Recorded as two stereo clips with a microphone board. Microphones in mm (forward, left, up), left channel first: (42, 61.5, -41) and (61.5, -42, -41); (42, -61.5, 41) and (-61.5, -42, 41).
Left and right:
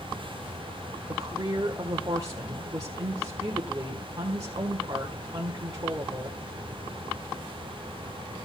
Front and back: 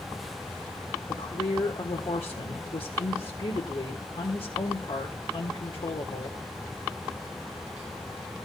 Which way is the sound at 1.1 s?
30° right.